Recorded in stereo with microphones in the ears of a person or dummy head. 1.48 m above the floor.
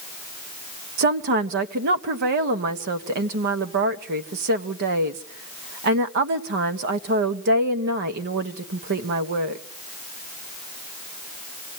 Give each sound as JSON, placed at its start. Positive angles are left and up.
{"t": 1.0, "sound": "a woman speaking", "side_deg": -60, "distance_m": 1.3}